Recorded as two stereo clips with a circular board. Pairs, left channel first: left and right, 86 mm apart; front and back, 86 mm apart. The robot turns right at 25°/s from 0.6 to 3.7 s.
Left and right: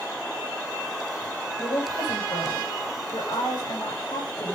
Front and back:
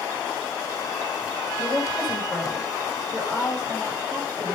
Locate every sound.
1.6 s a woman speaking: 75° left, 5.5 m; by 4.6 s 125° left, 5.5 m